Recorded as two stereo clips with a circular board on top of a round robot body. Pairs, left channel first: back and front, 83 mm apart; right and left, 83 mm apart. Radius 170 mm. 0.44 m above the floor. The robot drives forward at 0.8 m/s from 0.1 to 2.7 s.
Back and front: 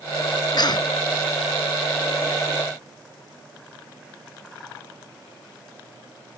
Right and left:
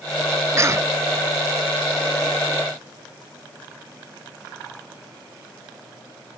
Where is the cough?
145° left; by 0.9 s 150° left.